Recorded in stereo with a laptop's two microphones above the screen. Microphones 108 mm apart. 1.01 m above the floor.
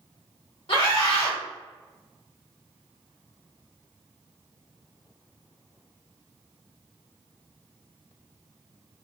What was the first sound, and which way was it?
A scream, 65° left (ahead or behind).